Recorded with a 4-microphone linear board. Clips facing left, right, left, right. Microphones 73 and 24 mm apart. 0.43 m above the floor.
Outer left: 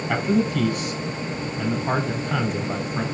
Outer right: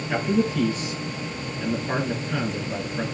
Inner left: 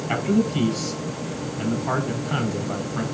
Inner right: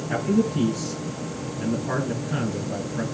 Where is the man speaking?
65° left (ahead or behind), 4 m.